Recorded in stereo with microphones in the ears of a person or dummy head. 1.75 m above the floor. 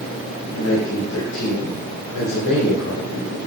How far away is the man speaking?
About 2.5 m.